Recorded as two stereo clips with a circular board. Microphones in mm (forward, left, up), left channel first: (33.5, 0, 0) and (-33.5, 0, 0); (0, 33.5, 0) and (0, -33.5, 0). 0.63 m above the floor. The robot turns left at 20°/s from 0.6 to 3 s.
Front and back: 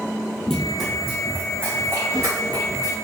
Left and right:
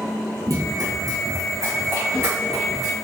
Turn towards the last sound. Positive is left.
turn(degrees=-165)